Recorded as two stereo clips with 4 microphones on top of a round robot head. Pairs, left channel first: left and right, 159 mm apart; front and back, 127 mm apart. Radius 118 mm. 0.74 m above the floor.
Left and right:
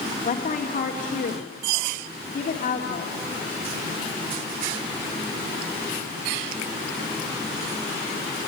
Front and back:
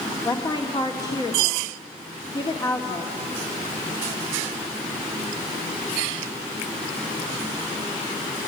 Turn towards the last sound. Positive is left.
turn(degrees=60)